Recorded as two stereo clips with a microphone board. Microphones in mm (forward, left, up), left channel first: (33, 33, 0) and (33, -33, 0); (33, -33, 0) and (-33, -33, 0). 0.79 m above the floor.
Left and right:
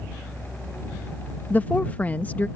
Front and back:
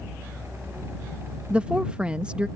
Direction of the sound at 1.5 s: 125° left.